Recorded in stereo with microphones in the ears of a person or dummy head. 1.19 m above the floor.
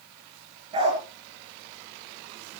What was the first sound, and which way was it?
A dog barking, 30° right (ahead or behind).